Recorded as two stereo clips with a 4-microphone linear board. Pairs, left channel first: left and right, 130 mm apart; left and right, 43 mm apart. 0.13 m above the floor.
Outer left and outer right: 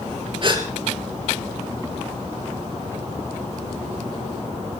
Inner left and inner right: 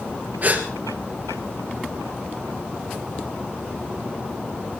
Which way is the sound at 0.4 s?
40° right (ahead or behind).